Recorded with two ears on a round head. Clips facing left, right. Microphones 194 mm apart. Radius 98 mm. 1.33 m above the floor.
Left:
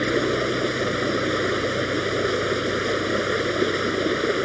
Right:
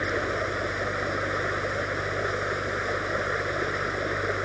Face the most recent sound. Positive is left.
turn(degrees=45)  # may be behind; listen again after turning